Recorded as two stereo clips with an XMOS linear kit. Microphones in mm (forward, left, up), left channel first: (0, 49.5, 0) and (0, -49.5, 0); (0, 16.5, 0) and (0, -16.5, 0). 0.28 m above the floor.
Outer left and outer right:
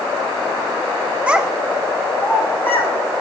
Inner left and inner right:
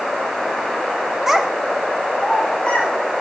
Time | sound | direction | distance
1.3 | a child speaking | 15° right (ahead or behind) | 0.5 m